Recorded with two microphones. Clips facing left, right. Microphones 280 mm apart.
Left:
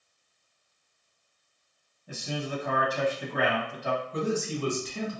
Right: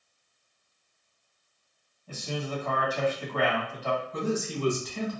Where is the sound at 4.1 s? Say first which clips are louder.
Left 3 dB; 35° left (ahead or behind), 1.2 m.